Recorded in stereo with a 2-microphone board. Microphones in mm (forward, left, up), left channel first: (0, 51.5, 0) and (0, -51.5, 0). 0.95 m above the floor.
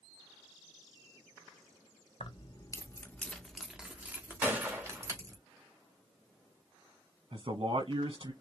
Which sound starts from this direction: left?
Keys jangling, at 2.2 s.